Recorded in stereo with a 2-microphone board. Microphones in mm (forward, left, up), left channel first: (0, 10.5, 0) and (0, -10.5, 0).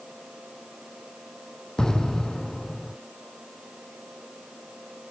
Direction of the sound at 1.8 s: 30° left (ahead or behind).